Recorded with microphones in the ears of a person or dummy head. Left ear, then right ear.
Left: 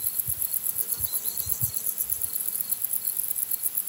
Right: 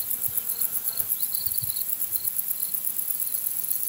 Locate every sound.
Only background noise.